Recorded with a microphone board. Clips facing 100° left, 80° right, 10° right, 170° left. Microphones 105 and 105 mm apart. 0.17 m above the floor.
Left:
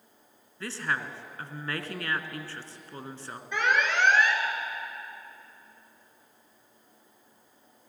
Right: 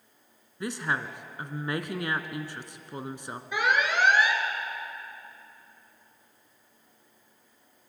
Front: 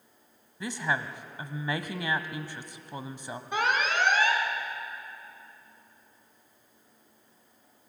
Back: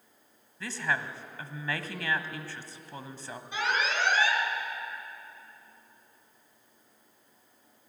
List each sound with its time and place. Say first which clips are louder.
0.6 s a woman speaking: right 2 dB, front 1 dB; 50° right, 1.1 m
3.5 s an alarm: even, front 3 dB; straight ahead, 2.5 m